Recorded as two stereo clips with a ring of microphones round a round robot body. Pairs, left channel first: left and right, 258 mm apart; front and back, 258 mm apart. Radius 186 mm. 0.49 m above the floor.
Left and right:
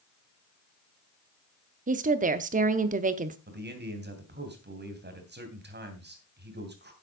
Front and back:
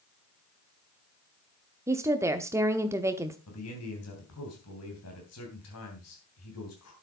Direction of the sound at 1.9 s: 110° right.